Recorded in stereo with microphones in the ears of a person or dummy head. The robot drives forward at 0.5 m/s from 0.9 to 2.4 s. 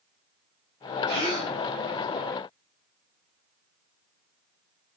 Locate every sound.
1.1 s a gasp: 35° right (ahead or behind), 1.5 m; by 1.6 s 30° right (ahead or behind), 1.6 m